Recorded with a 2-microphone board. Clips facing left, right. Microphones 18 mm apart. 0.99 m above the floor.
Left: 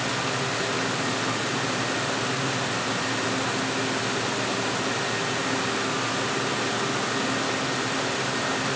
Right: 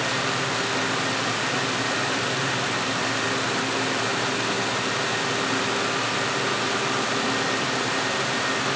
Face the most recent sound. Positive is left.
No sound to turn to.